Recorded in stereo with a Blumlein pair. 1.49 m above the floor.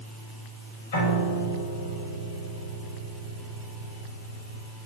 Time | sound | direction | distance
0.9 | a piano | 60° left | 5.5 m